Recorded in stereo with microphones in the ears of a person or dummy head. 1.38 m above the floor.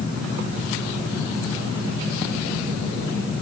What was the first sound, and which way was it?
Only background noise.